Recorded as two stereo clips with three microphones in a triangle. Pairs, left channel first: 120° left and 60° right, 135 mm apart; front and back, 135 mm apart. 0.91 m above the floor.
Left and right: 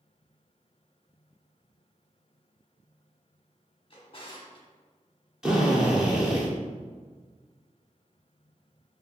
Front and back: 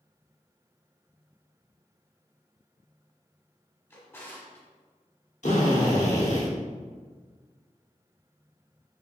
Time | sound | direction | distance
3.9 | a drawer | 70° left | 1.0 m
5.4 | a drill | 25° left | 1.0 m